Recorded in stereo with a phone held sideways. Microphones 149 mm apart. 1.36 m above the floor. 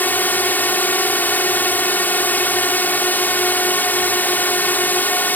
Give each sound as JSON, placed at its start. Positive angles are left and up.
{"t": 0.0, "sound": "a drone", "side_deg": 10}